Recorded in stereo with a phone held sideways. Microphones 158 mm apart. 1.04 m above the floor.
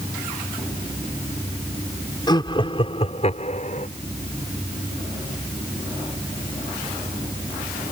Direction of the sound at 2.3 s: 25° left (ahead or behind).